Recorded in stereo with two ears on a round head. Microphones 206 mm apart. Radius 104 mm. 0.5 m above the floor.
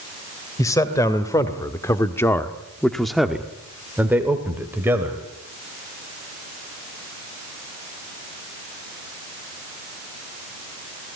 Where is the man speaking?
15° left (ahead or behind), 2.5 m; by 5.2 s 10° right (ahead or behind), 3 m.